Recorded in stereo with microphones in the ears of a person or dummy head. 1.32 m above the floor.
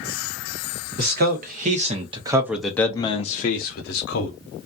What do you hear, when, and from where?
1.0 s a man speaking: 50° right (ahead or behind), 1.0 m; by 4.4 s 65° left (ahead or behind), 1.0 m